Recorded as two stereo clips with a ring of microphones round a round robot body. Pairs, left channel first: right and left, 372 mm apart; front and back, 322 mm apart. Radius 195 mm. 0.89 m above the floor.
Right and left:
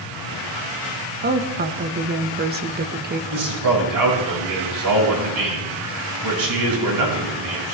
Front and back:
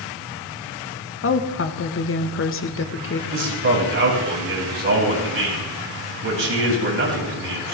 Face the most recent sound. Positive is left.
turn(degrees=130)